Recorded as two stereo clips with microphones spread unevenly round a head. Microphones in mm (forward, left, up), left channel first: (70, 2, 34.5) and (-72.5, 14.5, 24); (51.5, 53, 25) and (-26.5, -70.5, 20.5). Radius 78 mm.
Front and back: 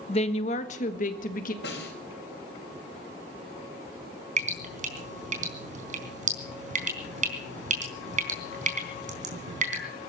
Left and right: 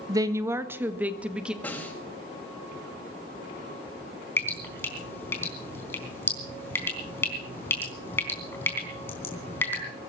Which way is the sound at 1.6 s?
20° right.